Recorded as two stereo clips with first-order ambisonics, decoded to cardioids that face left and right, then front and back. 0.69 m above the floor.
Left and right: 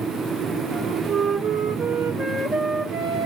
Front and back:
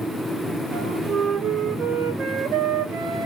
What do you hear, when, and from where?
0.7 s a flute: 140° right, 1.4 m